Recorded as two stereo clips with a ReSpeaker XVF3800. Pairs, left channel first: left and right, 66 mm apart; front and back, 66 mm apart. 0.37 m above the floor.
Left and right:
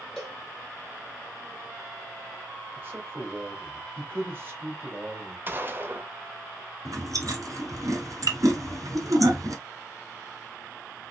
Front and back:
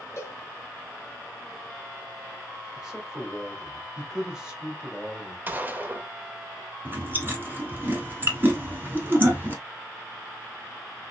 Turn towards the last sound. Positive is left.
turn(degrees=-120)